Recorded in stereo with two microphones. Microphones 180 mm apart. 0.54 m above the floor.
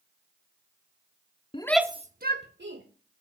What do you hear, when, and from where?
1.5 s a shout: 30° left (ahead or behind), 0.7 m; by 2.8 s 70° right (ahead or behind), 1.7 m